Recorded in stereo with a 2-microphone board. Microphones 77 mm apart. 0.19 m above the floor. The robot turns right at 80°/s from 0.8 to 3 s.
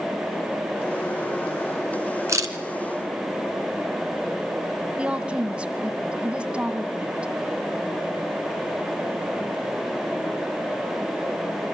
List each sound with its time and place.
2.3 s a camera shutter: 40° right (ahead or behind), 1.9 m; by 2.5 s 50° right (ahead or behind), 1.9 m
5.0 s a woman speaking: 15° right (ahead or behind), 1.4 m